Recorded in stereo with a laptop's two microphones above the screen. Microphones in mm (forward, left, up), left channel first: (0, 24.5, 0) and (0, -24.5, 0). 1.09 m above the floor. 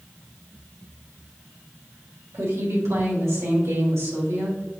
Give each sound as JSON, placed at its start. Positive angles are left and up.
{"t": 2.3, "sound": "a woman speaking", "side_deg": -70, "distance_m": 1.8}